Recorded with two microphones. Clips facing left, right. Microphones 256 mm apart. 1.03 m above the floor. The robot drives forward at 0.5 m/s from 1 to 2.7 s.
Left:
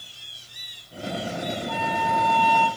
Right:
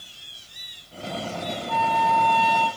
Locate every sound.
1.7 s a flute: 40° right (ahead or behind), 0.8 m; by 2.7 s 45° right (ahead or behind), 0.8 m